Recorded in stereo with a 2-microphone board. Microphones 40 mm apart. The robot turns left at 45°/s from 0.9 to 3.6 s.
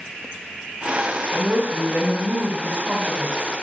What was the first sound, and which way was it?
A woman speaking, 45° right.